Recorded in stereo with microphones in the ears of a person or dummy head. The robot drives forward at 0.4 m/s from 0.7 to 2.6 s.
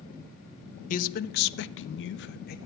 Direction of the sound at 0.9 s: 40° left (ahead or behind).